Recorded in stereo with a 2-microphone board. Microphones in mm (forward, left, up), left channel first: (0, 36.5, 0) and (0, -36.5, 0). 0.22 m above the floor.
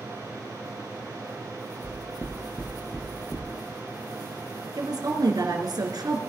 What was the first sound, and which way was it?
Knocking, 30° left (ahead or behind).